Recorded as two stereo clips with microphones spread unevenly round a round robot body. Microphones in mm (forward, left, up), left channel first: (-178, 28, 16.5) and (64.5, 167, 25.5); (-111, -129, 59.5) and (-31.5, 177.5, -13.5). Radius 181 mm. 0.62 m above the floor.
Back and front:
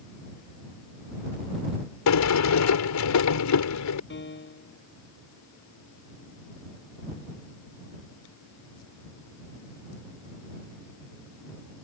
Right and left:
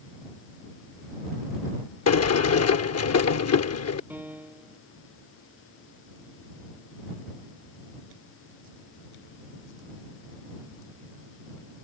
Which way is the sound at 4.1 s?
160° left.